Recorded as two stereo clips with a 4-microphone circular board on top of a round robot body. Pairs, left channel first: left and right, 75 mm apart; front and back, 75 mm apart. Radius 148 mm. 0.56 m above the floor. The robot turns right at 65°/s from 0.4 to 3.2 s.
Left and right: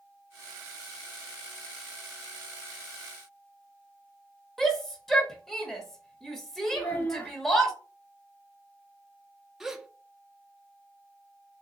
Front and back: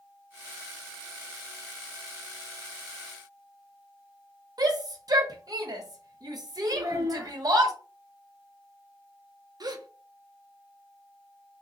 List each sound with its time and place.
4.6 s a shout: 175° left, 1.0 m
6.7 s a child speaking: 145° left, 0.9 m
9.6 s a gasp: 175° right, 0.7 m